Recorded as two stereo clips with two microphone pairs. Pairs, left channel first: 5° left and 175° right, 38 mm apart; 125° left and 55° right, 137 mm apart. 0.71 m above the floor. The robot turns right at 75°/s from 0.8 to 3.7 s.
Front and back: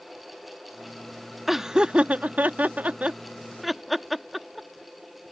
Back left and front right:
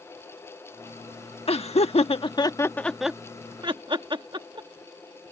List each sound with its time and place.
1.5 s laughter: 100° left; by 4.7 s 90° right